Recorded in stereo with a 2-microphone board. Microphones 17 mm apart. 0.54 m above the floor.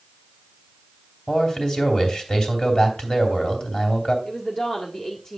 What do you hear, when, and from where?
1.3 s a man speaking: 45° left (ahead or behind), 3 m
4.2 s a woman speaking: 35° left (ahead or behind), 1.5 m